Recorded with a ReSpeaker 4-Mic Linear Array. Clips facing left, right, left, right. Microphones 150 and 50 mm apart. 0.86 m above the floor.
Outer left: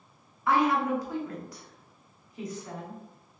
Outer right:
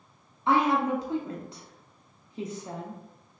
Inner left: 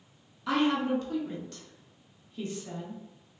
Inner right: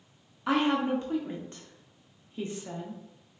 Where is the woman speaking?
25° right (ahead or behind), 0.8 m.